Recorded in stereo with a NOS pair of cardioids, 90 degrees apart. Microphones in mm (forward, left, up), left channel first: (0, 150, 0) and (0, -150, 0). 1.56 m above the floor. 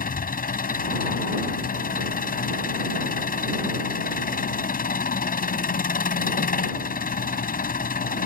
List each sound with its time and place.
0.0 s an engine running: 30° left